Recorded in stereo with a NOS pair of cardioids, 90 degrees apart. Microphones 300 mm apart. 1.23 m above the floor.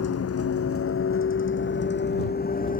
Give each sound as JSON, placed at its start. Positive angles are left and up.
{"t": 0.0, "sound": "a vehicle", "azimuth_deg": 55}